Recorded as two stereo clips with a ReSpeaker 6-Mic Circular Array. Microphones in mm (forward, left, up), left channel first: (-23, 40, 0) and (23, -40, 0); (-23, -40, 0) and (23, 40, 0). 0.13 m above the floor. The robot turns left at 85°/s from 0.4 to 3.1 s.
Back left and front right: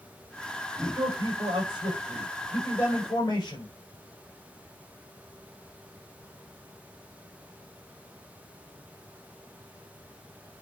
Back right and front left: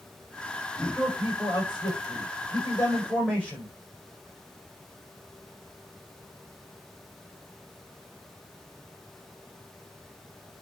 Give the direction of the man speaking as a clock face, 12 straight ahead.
12 o'clock.